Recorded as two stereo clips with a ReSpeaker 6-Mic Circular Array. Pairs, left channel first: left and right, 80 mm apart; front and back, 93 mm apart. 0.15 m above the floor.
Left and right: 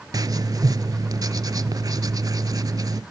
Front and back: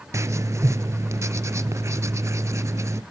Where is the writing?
125° right, 0.5 m.